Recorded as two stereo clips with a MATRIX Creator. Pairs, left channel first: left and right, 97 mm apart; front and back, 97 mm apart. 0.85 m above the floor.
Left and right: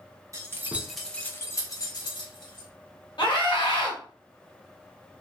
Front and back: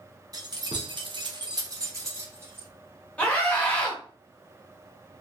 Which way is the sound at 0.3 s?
140° right.